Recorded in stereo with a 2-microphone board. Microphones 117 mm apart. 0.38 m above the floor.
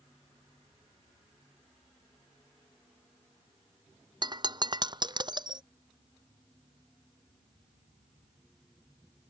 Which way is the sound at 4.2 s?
40° right (ahead or behind).